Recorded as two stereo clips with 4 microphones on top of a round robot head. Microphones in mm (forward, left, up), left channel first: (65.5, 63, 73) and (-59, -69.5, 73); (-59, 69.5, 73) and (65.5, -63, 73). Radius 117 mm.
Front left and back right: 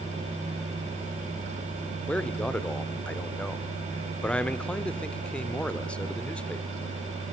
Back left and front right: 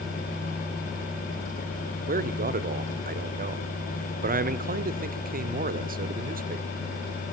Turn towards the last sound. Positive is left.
turn(degrees=-35)